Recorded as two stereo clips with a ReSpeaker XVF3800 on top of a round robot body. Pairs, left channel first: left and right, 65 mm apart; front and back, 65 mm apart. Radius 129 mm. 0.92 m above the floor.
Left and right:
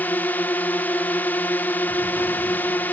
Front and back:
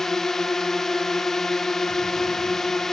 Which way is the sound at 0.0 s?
75° left.